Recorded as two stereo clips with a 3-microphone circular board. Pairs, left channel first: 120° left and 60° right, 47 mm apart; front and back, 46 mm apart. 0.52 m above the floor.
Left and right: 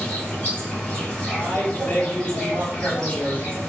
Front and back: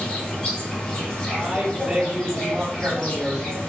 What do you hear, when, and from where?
0.0 s an insect: 60° left, 2.0 m
1.3 s a man speaking: 135° left, 1.7 m